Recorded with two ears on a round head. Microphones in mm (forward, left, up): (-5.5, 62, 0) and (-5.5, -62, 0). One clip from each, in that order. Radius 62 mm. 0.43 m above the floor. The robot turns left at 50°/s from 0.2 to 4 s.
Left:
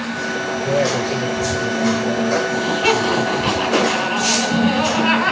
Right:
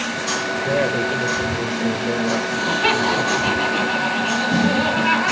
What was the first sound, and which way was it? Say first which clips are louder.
A woman speaking: left 2 dB; 5° right.